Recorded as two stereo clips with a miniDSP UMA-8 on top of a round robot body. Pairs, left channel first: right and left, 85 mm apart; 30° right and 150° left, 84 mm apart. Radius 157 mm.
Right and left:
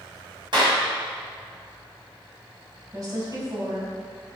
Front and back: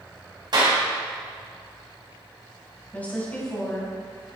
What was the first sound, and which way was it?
A clap, 120° left.